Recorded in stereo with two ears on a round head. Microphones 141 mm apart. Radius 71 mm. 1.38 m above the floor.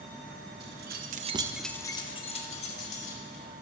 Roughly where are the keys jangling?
Right.